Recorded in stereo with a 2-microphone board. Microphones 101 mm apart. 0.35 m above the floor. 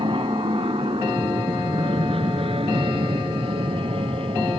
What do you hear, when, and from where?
0.0 s an aircraft: 55° right (ahead or behind); by 4.6 s 65° right (ahead or behind)